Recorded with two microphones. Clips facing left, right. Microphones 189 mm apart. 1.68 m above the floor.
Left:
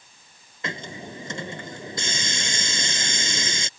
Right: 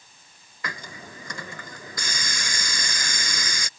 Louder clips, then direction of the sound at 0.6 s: Left 5 dB; 25° left (ahead or behind).